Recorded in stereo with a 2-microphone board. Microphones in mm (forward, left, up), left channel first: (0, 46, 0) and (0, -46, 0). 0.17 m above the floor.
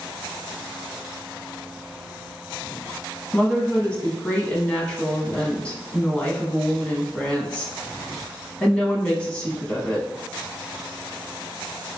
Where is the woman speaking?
15° left (ahead or behind), 1.0 m.